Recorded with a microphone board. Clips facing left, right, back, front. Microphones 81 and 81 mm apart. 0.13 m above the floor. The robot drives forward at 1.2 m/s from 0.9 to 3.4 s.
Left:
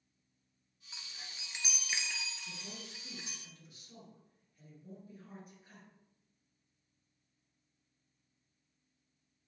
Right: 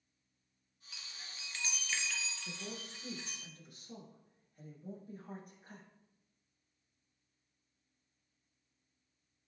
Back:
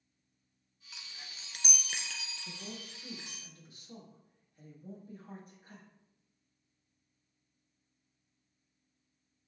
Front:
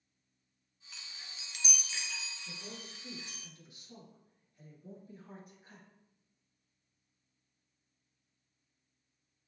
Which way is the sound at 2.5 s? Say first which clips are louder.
Right 3 dB, back 2 dB; 120° right.